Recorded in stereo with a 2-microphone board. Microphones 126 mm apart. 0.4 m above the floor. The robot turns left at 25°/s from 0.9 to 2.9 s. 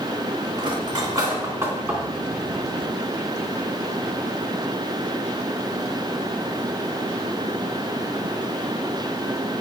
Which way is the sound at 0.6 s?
35° right (ahead or behind).